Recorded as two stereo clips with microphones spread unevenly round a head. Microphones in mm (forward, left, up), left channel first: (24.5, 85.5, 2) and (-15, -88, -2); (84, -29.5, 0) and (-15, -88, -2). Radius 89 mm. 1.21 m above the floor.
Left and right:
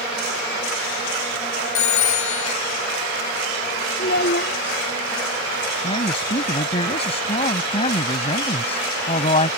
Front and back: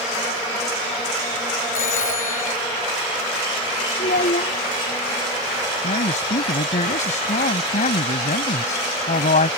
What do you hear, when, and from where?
1.8 s a phone ringing: 60° left
4.0 s a child speaking: 40° left
5.8 s a man speaking: 20° left